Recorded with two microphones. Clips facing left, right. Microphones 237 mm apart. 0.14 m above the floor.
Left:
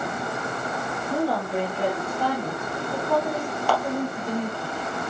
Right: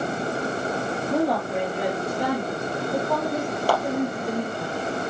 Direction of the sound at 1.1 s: 20° right (ahead or behind).